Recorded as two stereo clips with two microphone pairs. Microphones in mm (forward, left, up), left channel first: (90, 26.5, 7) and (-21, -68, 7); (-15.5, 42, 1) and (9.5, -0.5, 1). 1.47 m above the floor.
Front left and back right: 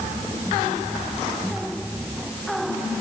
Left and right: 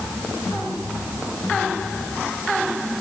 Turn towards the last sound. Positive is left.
No sound to turn to.